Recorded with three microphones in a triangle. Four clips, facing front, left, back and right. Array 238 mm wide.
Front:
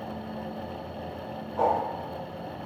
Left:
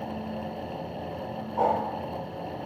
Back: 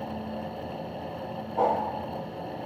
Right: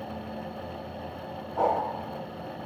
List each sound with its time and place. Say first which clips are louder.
1.6 s a whoosh: left 1 dB, even; 135° right, 1.2 m